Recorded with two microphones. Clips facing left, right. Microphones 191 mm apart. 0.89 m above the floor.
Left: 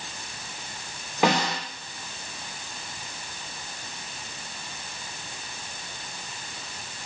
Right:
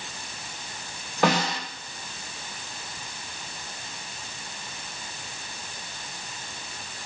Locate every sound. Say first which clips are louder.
1.2 s a snare drum: even; 15° left (ahead or behind), 3 m